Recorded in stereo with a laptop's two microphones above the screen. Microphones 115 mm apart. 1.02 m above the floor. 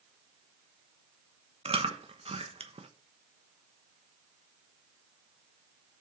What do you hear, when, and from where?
1.6 s chewing: 55° right (ahead or behind), 1.0 m